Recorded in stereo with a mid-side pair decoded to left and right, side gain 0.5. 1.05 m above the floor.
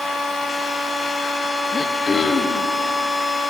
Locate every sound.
0.0 s a machine running: 35° left, 5 m
1.7 s throat clearing: 35° left, 1.1 m